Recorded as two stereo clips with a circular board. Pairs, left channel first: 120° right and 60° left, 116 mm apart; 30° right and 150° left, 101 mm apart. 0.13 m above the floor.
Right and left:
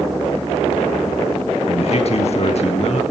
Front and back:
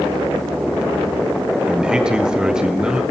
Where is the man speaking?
130° right, 2 m.